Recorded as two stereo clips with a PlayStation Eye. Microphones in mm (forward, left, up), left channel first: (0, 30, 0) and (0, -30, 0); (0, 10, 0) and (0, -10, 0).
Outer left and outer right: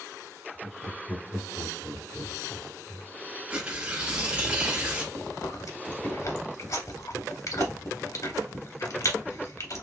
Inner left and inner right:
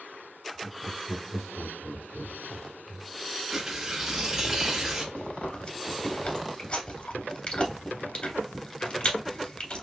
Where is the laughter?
45° left (ahead or behind), 2.5 m; by 3.1 s 5° left (ahead or behind), 1.5 m.